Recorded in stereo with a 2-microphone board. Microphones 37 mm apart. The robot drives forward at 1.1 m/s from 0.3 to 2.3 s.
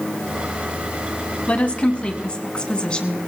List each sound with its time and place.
1.5 s a woman speaking: 35° left (ahead or behind), 1.5 m; by 3.2 s 25° left (ahead or behind), 1.9 m